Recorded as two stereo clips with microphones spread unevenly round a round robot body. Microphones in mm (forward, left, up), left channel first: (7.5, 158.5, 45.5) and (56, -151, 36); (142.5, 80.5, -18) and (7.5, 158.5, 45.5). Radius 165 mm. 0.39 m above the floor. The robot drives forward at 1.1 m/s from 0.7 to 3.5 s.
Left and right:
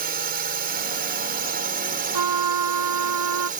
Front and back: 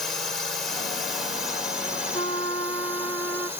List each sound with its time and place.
0.0 s a drone: 65° right; by 3.6 s 100° right
2.1 s a trumpet: 105° right; by 3.5 s 120° right